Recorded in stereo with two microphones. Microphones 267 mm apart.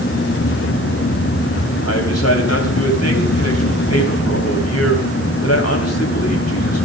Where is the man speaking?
65° left (ahead or behind), 3.5 m.